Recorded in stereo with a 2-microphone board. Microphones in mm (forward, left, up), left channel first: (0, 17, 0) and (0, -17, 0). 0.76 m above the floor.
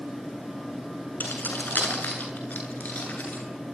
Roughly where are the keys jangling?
Left.